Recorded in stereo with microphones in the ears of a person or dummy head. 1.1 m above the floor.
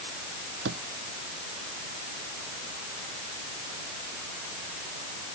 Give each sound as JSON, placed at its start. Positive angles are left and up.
{"t": 0.7, "sound": "a drawer", "side_deg": -80}